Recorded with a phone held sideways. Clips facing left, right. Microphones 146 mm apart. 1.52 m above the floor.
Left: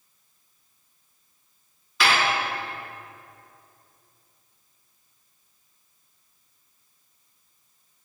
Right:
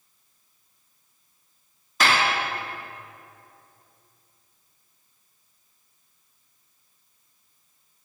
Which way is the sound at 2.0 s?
45° right (ahead or behind).